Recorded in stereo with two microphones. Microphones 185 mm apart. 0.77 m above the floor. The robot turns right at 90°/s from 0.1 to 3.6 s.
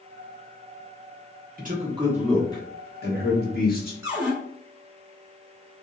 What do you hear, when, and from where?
1.6 s a man speaking: 60° right, 1.2 m; by 3.9 s 120° left, 1.2 m
4.0 s a cupboard door: 15° right (ahead or behind), 1.2 m